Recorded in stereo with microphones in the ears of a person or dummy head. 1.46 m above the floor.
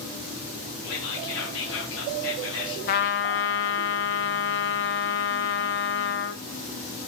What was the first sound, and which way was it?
Whispering, 70° left (ahead or behind).